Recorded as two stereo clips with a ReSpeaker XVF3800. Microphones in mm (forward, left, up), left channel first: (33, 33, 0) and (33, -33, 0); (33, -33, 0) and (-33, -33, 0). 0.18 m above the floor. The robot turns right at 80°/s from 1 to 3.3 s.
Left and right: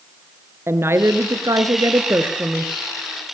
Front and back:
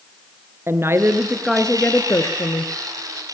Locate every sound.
0.7 s a woman speaking: 135° right, 2.5 m; by 2.7 s 5° left, 2.5 m